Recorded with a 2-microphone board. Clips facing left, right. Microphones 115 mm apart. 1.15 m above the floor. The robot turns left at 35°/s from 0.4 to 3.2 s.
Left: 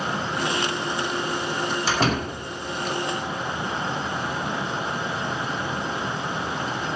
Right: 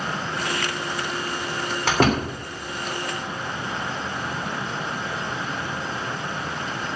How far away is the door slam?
About 3 m.